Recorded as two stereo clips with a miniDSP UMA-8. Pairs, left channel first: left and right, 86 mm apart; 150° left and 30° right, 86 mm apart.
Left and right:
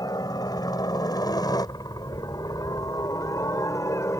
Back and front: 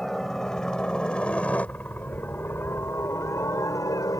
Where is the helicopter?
65° left; by 4.2 s 125° left.